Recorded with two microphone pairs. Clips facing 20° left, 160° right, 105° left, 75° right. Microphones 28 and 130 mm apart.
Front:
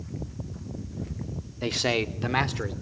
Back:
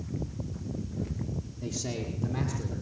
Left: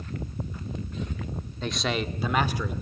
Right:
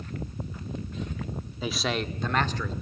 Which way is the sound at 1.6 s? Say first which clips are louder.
Front 11 dB, left 1 dB; 10° left.